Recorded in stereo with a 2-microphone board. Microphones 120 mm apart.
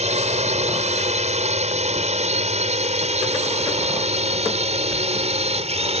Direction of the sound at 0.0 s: 70° right (ahead or behind).